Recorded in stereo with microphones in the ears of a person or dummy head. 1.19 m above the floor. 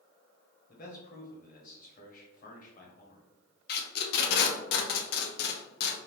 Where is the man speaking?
40° left (ahead or behind), 0.8 m.